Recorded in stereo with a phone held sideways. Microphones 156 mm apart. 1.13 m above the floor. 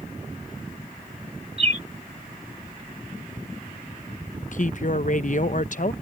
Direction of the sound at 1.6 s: 45° right (ahead or behind).